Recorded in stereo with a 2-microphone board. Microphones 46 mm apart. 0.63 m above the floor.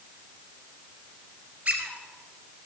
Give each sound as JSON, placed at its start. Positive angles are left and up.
{"t": 1.6, "sound": "a squeak", "side_deg": -30, "distance_m": 2.5}